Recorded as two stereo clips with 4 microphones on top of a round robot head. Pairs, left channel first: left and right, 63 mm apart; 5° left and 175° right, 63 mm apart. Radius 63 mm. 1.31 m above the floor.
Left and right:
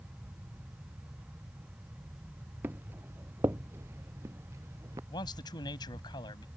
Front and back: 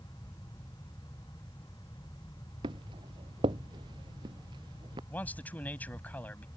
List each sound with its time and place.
2.6 s footsteps: 160° right; by 5.0 s 145° right
5.1 s a man speaking: 75° left